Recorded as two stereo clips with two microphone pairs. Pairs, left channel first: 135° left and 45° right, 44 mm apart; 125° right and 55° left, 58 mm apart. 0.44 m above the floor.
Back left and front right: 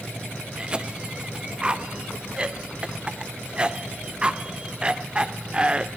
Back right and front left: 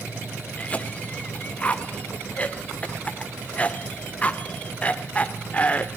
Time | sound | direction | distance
0.6 | a cough | 85° right | 1.3 m